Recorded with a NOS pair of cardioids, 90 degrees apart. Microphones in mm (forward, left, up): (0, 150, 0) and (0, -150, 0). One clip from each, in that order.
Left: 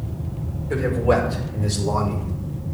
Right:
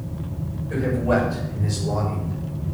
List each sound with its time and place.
0.7 s a man speaking: 65° left, 5.5 m; by 2.3 s 55° left, 5.5 m